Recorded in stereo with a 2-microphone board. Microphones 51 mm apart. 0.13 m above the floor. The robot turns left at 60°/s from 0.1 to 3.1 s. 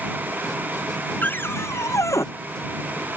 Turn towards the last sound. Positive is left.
turn(degrees=35)